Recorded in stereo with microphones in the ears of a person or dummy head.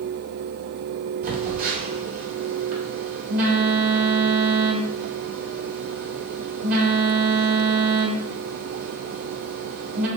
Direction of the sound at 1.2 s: 50° right (ahead or behind).